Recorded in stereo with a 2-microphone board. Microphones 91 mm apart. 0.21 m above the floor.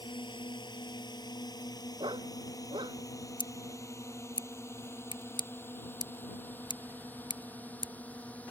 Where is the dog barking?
70° right (ahead or behind).